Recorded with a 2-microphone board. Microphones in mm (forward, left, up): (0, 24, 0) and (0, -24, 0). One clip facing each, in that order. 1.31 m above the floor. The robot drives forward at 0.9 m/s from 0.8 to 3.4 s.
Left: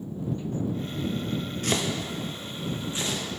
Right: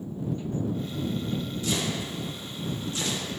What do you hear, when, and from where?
1.6 s chopping: 50° left (ahead or behind), 0.7 m; by 3.2 s 20° left (ahead or behind), 1.5 m